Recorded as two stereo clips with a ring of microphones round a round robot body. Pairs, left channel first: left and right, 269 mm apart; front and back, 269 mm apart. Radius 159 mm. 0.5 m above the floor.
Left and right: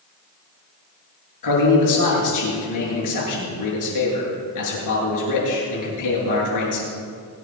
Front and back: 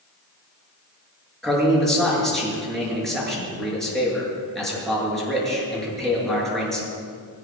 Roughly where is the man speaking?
Left.